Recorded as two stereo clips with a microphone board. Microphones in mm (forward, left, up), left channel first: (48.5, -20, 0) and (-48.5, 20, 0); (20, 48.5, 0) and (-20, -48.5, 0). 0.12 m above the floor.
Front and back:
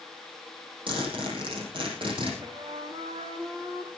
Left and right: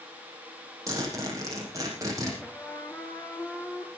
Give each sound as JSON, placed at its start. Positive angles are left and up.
{"t": 0.9, "sound": "a zipper", "azimuth_deg": -170, "distance_m": 6.0}
{"t": 2.4, "sound": "a trumpet", "azimuth_deg": 135, "distance_m": 1.8}